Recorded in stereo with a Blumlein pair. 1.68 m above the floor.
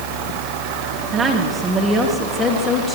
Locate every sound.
1.1 s a woman speaking: 20° right, 3 m; by 3.0 s 10° left, 3.5 m